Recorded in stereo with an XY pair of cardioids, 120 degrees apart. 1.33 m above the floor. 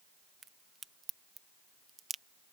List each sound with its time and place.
0.4 s a crack: 25° right